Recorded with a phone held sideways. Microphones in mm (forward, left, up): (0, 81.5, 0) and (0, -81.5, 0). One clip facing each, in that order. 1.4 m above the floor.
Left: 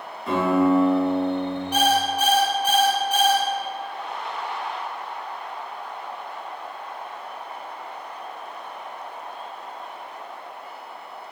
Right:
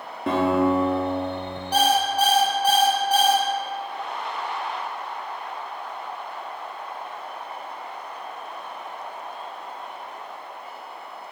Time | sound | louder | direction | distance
0.3 | a guitar | left 1 dB | 70° right (ahead or behind) | 1.5 m
1.7 | an alarm clock | right 2 dB | 35° right (ahead or behind) | 0.9 m